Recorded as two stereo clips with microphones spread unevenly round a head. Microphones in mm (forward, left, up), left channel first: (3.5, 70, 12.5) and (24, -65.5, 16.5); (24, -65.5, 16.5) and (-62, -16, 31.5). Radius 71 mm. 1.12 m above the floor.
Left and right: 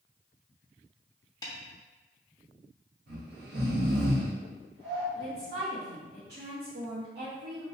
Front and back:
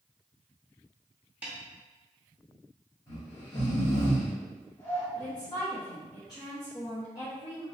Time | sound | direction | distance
1.4 | a snare drum | 125° left | 0.7 m
3.1 | snoring | 90° right | 1.8 m
5.2 | a woman speaking | 80° right | 1.3 m